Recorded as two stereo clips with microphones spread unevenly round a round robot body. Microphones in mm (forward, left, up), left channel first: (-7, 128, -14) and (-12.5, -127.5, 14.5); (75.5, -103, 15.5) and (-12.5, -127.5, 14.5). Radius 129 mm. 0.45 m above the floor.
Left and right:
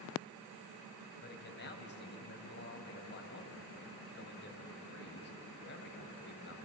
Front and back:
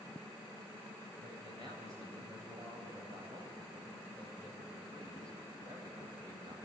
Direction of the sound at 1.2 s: 130° left.